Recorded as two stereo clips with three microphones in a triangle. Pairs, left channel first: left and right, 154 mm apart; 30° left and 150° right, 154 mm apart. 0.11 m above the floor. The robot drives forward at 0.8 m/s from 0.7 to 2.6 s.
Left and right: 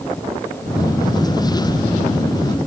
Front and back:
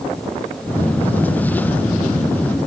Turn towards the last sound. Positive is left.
No sound to turn to.